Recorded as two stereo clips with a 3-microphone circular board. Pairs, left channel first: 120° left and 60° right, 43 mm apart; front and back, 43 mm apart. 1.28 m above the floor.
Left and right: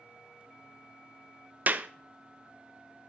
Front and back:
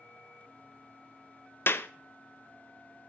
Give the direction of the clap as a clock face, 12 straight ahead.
1 o'clock.